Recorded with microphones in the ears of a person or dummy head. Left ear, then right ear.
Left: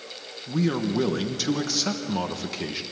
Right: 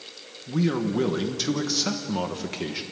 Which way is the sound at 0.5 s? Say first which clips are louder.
Even; 5° left (ahead or behind).